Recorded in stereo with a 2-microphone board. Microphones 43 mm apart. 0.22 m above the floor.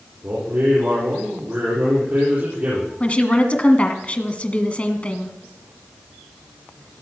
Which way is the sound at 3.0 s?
30° left (ahead or behind).